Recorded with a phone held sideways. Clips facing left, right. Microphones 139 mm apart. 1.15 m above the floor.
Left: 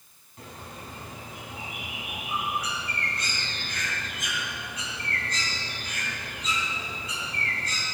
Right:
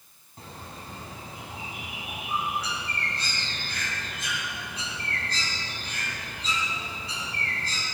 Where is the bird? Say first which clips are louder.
Even; 30° right (ahead or behind), 2.5 m.